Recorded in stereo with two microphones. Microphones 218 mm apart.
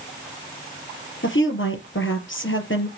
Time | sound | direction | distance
1.2 | a woman speaking | 65° left (ahead or behind) | 4 m